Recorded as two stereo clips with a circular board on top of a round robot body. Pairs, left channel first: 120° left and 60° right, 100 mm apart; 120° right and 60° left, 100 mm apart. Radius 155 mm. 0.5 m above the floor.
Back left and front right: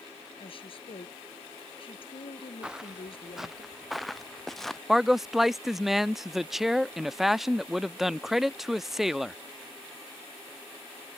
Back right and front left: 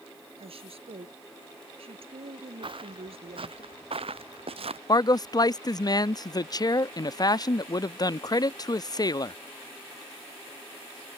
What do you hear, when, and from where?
0.4 s a woman speaking: 85° left
2.6 s footsteps: 25° left; by 4.8 s 35° left
4.9 s a man speaking: 145° right